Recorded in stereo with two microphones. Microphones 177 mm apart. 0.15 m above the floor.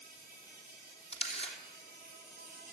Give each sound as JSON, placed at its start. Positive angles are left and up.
{"t": 0.0, "sound": "an insect", "side_deg": -55, "distance_m": 5.5}
{"t": 1.1, "sound": "a camera shutter", "side_deg": 35, "distance_m": 2.5}